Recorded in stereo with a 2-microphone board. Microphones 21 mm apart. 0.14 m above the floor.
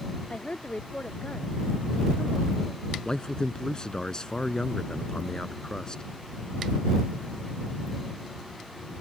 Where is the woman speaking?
70° left (ahead or behind).